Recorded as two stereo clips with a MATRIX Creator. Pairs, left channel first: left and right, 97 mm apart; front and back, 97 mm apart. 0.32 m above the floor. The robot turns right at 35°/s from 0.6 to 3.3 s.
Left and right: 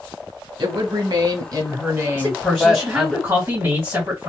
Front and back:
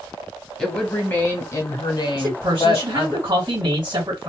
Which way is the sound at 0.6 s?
80° right.